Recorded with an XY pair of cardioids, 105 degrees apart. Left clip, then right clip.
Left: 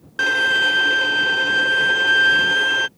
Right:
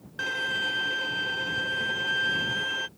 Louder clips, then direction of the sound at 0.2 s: Left 12 dB; 60° left.